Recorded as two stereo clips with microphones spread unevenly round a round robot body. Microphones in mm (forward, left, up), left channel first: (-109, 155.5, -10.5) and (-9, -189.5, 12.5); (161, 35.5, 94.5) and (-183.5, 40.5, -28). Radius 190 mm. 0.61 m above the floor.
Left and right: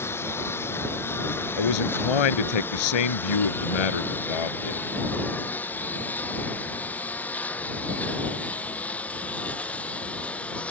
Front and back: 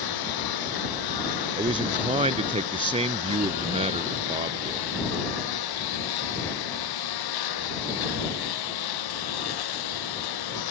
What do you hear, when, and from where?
0.0 s a lawn mower: 20° left
1.6 s a man speaking: 105° left